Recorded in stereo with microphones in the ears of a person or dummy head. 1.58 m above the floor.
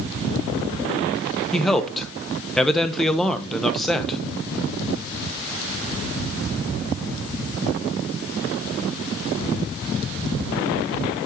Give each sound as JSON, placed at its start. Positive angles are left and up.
{"t": 1.5, "sound": "a man speaking", "side_deg": 5, "distance_m": 1.0}